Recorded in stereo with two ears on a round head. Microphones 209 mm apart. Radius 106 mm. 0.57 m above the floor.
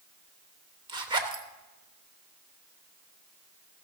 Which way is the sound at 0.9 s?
20° right (ahead or behind).